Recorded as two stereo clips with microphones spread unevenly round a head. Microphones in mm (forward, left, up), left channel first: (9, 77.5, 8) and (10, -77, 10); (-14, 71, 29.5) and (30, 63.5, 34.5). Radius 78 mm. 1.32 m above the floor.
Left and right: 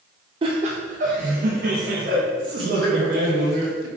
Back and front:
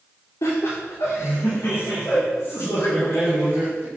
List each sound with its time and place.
0.4 s laughter: 150° right, 0.6 m; by 3.9 s 110° right, 2 m